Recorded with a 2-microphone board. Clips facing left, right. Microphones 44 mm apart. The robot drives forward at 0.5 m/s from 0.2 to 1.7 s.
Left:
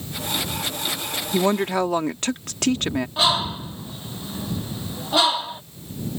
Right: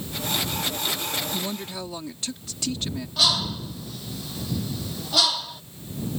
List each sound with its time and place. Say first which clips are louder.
1.3 s a woman speaking: left 11 dB; 55° left (ahead or behind)
3.2 s a bird: left 1 dB; 25° left (ahead or behind)